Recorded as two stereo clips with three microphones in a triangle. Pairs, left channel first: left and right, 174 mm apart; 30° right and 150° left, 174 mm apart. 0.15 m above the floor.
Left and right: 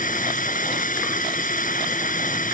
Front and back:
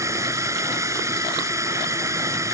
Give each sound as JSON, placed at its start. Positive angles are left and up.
{"t": 0.0, "sound": "a drone", "azimuth_deg": 80}